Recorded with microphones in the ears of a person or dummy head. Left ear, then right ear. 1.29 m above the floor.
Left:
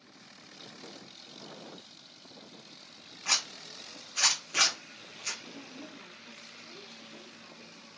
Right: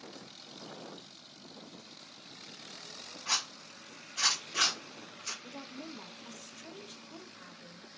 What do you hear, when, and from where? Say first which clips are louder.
3.2 s a zipper: left 3 dB; 60° left (ahead or behind), 0.7 m
5.4 s a woman speaking: right 1 dB; 55° right (ahead or behind), 0.6 m